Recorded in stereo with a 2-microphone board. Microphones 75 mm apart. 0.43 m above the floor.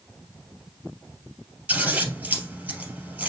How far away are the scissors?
About 2.5 m.